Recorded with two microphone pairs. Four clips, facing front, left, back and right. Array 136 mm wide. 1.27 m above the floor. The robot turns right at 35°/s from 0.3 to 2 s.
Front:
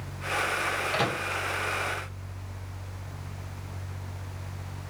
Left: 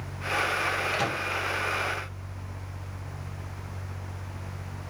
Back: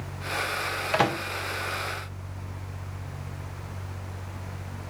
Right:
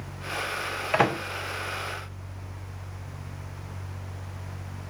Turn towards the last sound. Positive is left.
turn(degrees=-85)